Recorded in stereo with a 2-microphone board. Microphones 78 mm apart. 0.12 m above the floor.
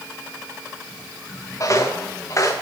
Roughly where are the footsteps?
Left.